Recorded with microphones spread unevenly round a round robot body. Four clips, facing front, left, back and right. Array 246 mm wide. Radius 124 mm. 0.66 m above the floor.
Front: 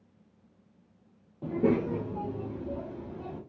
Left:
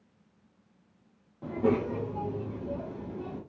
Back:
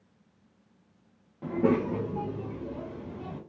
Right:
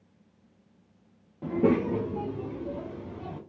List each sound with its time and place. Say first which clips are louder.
1.4 s a child speaking: right 3 dB, back 1 dB; 70° right, 0.6 m; by 3.4 s 95° right, 2 m